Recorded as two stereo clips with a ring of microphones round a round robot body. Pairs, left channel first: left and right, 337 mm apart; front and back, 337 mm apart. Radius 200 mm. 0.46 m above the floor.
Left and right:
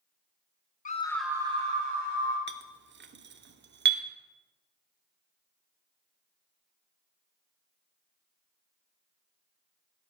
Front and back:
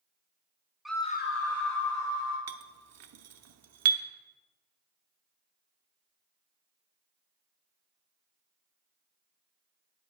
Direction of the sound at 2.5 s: 145° right.